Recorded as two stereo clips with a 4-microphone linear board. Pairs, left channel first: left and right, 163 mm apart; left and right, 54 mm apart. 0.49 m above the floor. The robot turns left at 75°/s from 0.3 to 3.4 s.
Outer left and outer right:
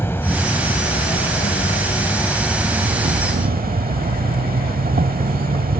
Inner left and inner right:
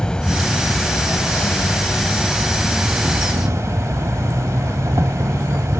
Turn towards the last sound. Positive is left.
turn(degrees=-65)